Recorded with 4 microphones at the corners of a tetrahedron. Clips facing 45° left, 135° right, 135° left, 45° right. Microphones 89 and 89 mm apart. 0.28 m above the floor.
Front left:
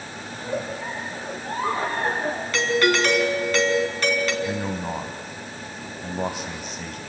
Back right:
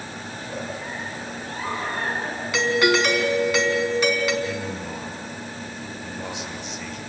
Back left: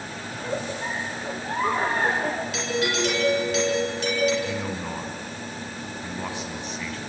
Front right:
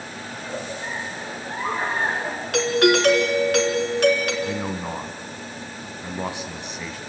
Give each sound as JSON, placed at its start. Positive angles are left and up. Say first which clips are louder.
{"t": 0.3, "sound": "a giggle", "louder": "front left 5 dB, back left 3 dB", "azimuth_deg": 100, "distance_m": 5.5}
{"t": 2.5, "sound": "a doorbell", "louder": "back right 2 dB, front right 13 dB", "azimuth_deg": -55, "distance_m": 3.0}
{"t": 4.4, "sound": "a man speaking", "louder": "front left 2 dB, front right 2 dB", "azimuth_deg": 20, "distance_m": 1.7}